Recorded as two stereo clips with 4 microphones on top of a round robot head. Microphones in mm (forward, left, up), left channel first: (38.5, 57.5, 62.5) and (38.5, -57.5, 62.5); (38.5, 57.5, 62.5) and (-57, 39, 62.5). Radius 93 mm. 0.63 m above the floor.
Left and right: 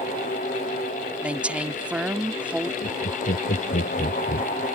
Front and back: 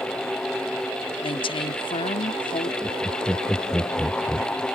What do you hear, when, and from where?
1.2 s a woman speaking: 10° right
2.8 s laughter: 100° left